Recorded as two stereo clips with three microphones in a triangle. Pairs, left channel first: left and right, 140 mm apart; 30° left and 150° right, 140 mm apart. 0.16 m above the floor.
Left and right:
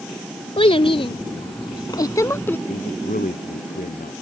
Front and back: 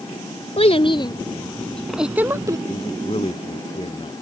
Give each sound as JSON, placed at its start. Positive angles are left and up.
{"t": 0.6, "sound": "a child speaking", "azimuth_deg": 55}
{"t": 2.7, "sound": "a man speaking", "azimuth_deg": 80}